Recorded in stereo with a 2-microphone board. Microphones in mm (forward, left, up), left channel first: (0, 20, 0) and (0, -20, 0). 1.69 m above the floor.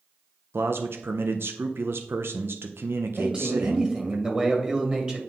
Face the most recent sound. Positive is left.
turn(degrees=-25)  # may be behind; listen again after turning